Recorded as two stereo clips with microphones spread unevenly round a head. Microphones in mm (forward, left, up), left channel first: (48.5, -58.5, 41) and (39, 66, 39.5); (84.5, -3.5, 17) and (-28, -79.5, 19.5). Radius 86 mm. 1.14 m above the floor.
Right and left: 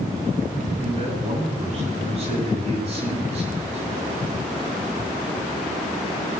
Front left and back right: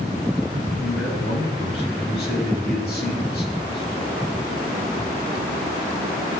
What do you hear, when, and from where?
0.8 s a man speaking: 60° left, 7 m